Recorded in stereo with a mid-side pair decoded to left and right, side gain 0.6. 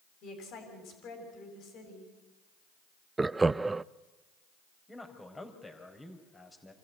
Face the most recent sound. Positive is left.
turn(degrees=15)